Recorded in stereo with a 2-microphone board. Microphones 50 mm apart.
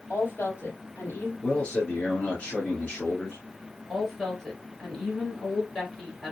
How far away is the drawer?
No drawer in this recording.